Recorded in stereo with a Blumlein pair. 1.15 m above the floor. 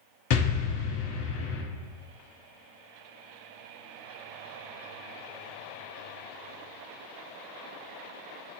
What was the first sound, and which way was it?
An explosion, 40° left.